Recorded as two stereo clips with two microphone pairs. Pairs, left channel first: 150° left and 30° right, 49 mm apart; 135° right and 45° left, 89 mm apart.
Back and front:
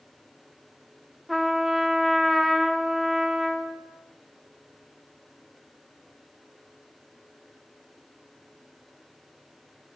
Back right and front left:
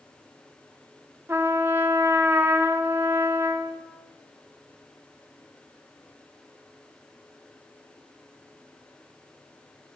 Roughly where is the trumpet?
Ahead left.